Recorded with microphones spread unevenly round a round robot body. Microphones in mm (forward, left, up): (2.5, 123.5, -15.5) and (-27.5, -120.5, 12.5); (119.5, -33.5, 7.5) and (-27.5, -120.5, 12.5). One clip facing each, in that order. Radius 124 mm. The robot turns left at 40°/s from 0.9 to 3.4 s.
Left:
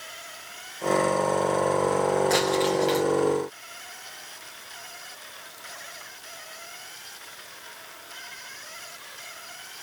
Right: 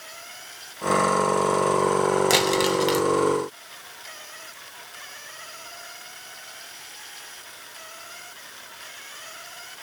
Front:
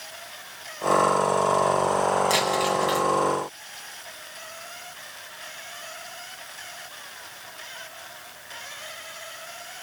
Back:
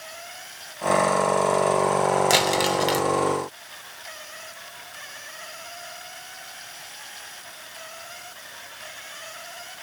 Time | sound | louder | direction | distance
2.3 | crumpling | right 1 dB, back 2 dB | 135° right | 1.2 m